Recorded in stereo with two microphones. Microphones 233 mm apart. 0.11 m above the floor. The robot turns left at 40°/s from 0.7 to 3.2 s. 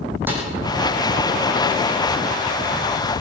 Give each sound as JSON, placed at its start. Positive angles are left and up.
{"t": 0.3, "sound": "a snare drum", "side_deg": -10, "distance_m": 4.5}